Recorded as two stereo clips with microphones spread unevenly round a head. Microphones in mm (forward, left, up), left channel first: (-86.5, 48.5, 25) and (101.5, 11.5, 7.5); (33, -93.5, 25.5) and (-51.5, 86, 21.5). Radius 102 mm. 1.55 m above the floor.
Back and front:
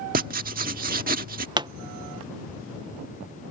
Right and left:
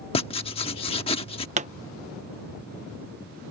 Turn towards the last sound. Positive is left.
turn(degrees=60)